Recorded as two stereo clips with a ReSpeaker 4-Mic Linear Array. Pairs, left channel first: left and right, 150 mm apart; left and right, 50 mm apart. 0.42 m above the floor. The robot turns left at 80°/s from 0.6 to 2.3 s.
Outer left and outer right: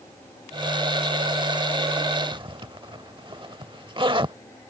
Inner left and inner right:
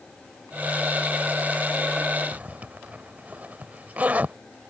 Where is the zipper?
35° right (ahead or behind).